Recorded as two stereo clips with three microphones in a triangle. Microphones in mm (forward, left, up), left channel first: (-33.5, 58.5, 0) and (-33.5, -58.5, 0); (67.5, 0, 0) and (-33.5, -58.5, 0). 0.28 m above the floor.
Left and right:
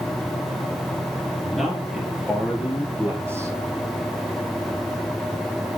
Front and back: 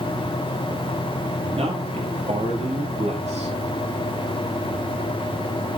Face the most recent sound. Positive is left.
turn(degrees=-155)